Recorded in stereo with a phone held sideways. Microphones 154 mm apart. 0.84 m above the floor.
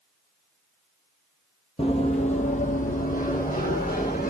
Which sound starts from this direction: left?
Running footsteps, at 1.8 s.